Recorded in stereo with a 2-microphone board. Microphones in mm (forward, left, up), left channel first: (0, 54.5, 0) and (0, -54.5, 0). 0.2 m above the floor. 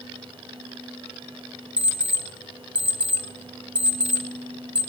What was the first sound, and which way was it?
An alarm clock, 10° right (ahead or behind).